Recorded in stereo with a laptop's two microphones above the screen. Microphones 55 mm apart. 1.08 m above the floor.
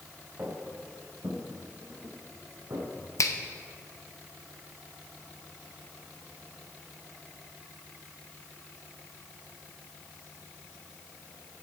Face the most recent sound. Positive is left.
turn(degrees=65)  # may be behind; listen again after turning